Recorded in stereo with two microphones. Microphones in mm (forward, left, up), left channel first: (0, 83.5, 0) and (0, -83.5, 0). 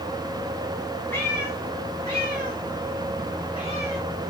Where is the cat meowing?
15° left (ahead or behind), 4 m; by 4.0 s 35° left (ahead or behind), 5 m.